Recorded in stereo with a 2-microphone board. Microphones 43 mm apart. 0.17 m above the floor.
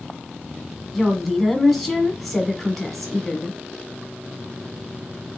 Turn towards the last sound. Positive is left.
turn(degrees=0)  # may be behind; listen again after turning